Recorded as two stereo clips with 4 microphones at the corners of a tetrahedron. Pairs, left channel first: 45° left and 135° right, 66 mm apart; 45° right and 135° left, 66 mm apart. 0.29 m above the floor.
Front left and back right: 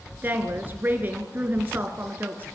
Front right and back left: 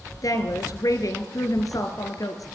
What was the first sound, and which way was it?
A woman speaking, 75° right.